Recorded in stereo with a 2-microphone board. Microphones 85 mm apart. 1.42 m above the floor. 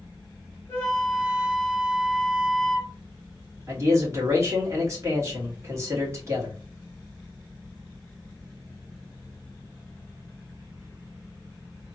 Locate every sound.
0.7 s a flute: 25° left (ahead or behind), 1.4 m
3.7 s a man speaking: 35° right (ahead or behind), 1.6 m